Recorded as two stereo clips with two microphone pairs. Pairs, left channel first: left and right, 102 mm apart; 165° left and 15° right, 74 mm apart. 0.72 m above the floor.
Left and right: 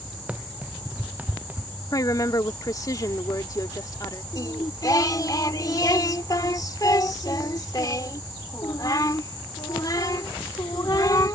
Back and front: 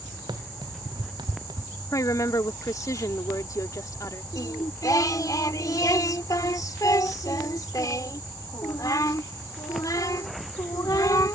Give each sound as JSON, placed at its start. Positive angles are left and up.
{"t": 0.3, "sound": "running footsteps", "azimuth_deg": -15}
{"t": 1.9, "sound": "a woman speaking", "azimuth_deg": 135}
{"t": 4.3, "sound": "singing", "azimuth_deg": 135}